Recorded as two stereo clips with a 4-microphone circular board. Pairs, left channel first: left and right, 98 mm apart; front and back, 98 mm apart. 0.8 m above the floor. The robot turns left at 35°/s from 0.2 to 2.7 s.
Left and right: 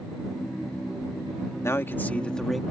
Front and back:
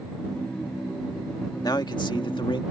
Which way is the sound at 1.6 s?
35° left.